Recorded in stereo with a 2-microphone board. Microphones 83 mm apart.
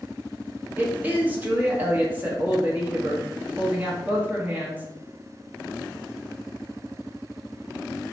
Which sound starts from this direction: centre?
A woman speaking, at 0.8 s.